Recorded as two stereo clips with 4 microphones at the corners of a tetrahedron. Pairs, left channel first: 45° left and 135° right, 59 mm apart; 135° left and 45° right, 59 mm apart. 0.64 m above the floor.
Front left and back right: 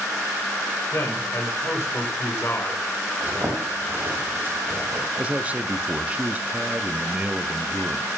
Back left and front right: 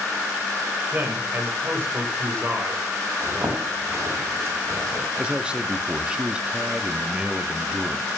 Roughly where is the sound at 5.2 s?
Right.